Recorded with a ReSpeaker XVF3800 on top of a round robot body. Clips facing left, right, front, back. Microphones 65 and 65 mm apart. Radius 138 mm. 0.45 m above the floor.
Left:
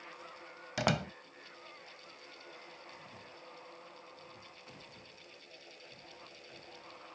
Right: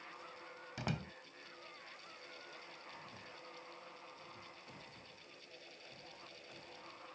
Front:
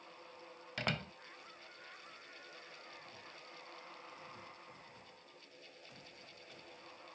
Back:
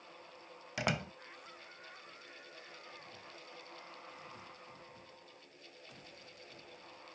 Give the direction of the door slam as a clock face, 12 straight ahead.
9 o'clock.